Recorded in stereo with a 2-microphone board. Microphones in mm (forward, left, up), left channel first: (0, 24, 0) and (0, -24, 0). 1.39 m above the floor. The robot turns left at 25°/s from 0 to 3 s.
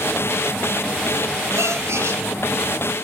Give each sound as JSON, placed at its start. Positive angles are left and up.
{"t": 1.6, "sound": "a gasp", "side_deg": -75, "distance_m": 4.0}